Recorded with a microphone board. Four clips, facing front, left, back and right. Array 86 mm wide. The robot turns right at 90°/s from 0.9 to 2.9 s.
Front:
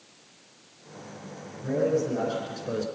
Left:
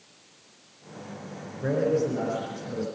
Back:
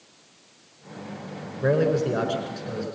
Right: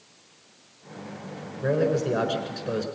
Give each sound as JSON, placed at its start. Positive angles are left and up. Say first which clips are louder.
{"t": 1.6, "sound": "a man speaking", "louder": "right 1 dB, back 4 dB", "azimuth_deg": 180, "distance_m": 4.0}